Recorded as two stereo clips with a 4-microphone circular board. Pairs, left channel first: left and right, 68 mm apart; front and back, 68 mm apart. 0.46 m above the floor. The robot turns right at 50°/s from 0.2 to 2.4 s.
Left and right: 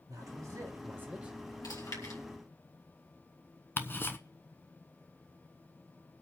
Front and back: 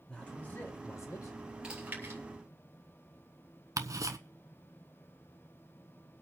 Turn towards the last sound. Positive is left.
turn(degrees=145)